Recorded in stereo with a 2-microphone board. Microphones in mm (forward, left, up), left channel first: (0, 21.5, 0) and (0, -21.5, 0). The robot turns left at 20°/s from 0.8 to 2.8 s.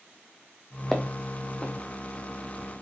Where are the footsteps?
5° left (ahead or behind), 1.5 m; by 1.7 s 20° left (ahead or behind), 1.5 m.